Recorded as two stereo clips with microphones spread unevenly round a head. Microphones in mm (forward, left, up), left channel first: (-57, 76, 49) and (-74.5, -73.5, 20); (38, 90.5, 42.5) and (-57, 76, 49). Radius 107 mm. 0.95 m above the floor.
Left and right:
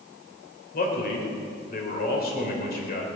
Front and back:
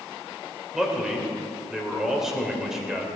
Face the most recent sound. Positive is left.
turn(degrees=105)